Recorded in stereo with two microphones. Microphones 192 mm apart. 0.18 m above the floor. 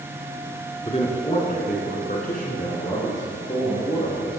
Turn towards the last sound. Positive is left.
turn(degrees=30)  # may be behind; listen again after turning